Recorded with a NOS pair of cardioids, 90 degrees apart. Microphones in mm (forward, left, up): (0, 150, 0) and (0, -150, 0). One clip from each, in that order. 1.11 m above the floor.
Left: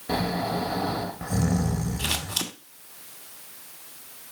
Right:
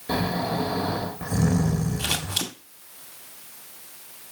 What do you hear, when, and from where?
0.1 s snoring: 5° right, 1.7 m
2.0 s scissors: 5° right, 1.8 m